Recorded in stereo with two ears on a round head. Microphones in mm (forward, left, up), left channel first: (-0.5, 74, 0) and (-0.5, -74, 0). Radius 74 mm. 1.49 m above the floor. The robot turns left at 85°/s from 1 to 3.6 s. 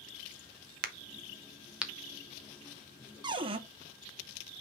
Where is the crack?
55° right (ahead or behind), 0.8 m; by 1.9 s centre (ahead or behind), 0.8 m.